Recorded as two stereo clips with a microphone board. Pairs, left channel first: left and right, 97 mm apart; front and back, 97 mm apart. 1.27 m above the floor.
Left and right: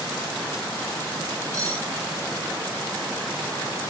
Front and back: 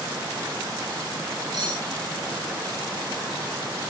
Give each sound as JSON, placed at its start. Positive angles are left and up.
{"t": 1.5, "sound": "cutlery clinking", "azimuth_deg": -145, "distance_m": 3.0}